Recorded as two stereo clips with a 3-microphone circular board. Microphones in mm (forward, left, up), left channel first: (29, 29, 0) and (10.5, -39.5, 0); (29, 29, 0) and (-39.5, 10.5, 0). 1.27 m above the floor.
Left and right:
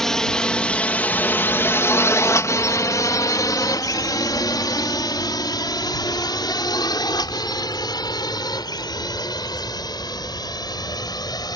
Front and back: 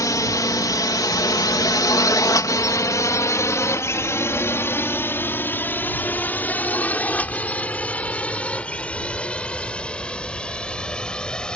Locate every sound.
0.0 s a drone: 10° right; by 11.6 s 90° left